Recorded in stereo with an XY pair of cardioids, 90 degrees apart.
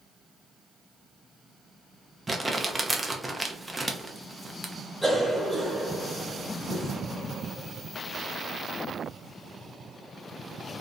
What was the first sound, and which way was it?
Crumpling, 10° right.